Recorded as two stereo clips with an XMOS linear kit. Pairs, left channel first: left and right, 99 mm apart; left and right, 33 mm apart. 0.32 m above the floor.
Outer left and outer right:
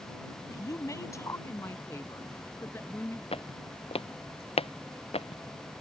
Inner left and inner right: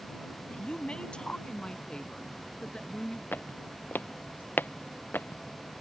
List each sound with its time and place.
0.5 s a woman speaking: 35° left (ahead or behind); by 3.2 s 25° left (ahead or behind)
3.3 s footsteps: 80° left